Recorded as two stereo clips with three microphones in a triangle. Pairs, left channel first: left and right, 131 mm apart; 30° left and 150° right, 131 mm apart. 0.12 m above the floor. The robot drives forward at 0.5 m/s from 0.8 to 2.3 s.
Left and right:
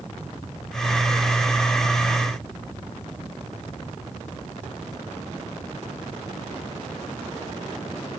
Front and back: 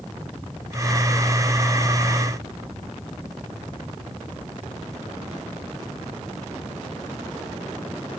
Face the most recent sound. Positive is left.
No sound to turn to.